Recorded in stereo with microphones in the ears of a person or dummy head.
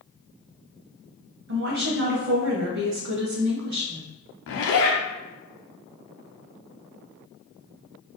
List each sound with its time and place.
1.5 s a woman speaking: 55° right (ahead or behind), 0.8 m
4.5 s a zipper: 65° left (ahead or behind), 0.8 m